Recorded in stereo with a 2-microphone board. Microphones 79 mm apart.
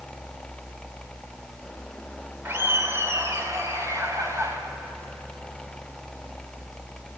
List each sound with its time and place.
2.5 s laughter: 30° right (ahead or behind), 2 m; by 4.6 s 35° right (ahead or behind), 4 m